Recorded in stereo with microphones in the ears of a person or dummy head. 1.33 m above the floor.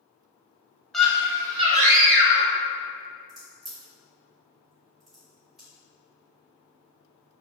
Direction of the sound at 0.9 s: 10° left (ahead or behind).